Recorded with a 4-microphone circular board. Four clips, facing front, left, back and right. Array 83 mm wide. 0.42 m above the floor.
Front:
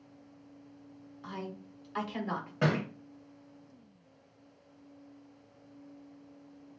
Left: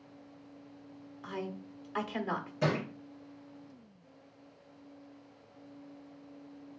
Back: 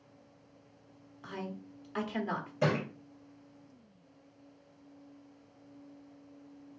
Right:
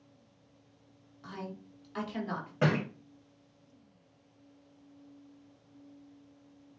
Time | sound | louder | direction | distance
1.2 | a woman speaking | left 3 dB, even | 115° left | 1.0 m
2.6 | a thud | right 3 dB, even | 50° right | 1.9 m